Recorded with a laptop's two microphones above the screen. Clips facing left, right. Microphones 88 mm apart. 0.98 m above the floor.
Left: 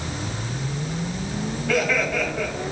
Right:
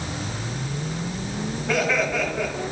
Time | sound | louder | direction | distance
1.7 | laughter | even | 20° right (ahead or behind) | 5.5 m